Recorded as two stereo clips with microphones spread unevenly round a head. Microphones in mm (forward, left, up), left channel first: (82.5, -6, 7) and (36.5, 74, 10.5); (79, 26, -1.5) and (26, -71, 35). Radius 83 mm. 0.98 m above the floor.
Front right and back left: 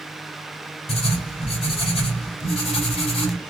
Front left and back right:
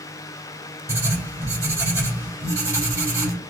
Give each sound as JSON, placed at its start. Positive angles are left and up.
{"t": 0.9, "sound": "writing", "azimuth_deg": -55, "distance_m": 2.5}